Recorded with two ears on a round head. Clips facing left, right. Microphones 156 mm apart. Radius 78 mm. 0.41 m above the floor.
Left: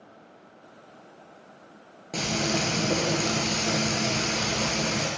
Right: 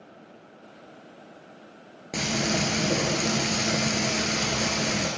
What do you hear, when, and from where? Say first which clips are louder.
2.1 s frying: even; 15° right (ahead or behind), 1.7 m